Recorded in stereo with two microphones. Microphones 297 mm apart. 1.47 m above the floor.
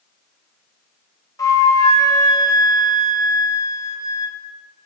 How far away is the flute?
About 0.5 m.